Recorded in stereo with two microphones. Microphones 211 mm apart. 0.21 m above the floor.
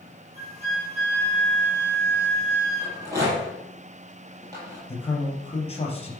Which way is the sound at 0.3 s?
30° right (ahead or behind).